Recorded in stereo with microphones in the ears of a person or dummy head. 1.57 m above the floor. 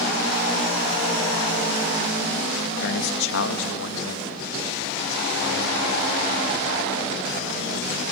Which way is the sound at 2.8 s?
50° left (ahead or behind).